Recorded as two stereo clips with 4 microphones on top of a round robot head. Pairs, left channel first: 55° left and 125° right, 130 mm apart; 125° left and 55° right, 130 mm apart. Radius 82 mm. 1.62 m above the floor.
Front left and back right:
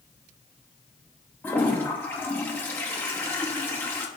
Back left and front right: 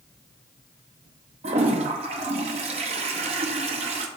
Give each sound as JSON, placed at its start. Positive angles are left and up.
{"t": 1.4, "sound": "a toilet flushing", "azimuth_deg": -20, "distance_m": 0.7}